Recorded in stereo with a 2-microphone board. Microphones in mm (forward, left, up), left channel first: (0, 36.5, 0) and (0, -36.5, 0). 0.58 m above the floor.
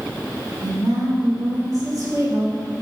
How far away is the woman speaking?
About 2 m.